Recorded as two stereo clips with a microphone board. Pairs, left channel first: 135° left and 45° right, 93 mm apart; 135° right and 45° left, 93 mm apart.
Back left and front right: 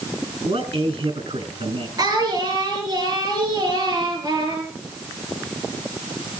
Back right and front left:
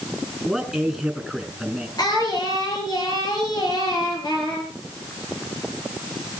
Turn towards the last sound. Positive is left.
turn(degrees=-90)